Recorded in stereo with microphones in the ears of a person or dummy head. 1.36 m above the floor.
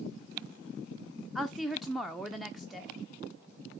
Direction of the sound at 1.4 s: Centre (ahead or behind).